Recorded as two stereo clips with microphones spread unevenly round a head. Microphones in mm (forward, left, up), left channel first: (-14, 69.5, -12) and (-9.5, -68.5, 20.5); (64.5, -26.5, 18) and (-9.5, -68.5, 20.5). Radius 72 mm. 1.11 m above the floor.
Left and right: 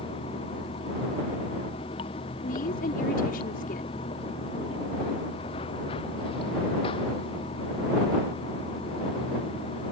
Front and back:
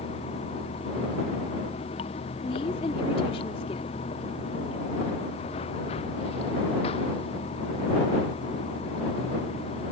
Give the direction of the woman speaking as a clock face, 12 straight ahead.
10 o'clock.